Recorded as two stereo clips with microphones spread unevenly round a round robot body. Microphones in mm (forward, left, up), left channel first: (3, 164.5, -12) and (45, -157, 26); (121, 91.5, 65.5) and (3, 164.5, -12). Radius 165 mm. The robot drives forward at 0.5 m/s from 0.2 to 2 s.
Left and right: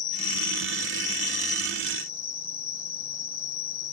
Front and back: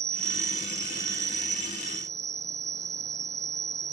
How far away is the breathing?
I don't hear breathing.